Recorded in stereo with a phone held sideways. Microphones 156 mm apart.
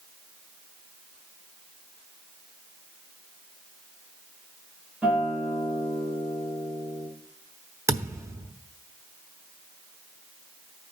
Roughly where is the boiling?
No boiling in this recording.